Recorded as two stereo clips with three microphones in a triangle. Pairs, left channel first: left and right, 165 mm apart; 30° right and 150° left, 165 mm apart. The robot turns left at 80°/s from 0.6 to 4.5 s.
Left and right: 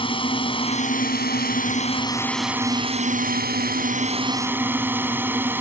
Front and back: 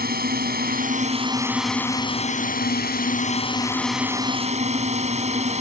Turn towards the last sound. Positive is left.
turn(degrees=-165)